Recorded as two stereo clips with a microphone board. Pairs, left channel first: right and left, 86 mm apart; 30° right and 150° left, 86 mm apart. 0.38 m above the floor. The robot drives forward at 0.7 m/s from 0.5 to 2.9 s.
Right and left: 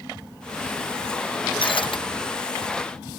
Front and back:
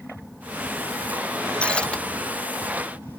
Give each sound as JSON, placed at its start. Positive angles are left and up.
{"t": 1.6, "sound": "breaking glass", "azimuth_deg": -110}